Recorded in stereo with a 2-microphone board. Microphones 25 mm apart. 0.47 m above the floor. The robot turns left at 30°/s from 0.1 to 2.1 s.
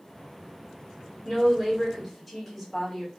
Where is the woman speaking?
5° right (ahead or behind), 1.3 m; by 3.1 s 10° left (ahead or behind), 1.3 m.